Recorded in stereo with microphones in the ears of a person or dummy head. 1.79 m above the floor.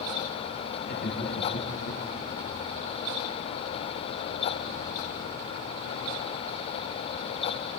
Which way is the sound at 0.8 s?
60° left (ahead or behind).